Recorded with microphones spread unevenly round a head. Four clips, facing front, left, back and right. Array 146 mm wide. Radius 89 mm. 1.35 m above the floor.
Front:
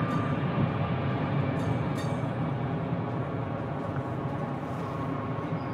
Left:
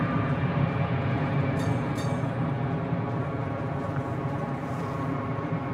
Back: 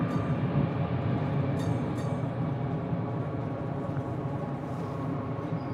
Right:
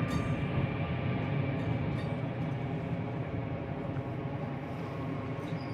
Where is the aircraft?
75° left.